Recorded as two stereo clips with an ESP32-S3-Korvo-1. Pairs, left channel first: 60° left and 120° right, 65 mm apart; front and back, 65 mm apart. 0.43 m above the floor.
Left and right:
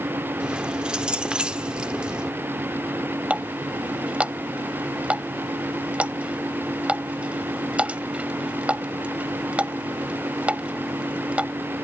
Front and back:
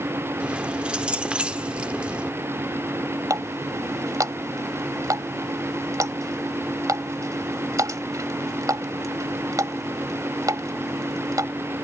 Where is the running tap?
170° left.